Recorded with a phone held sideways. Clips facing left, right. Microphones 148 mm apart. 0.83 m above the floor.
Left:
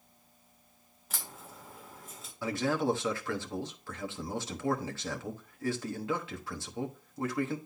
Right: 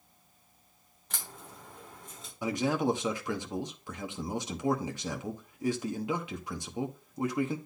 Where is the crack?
5° left (ahead or behind), 2.5 m.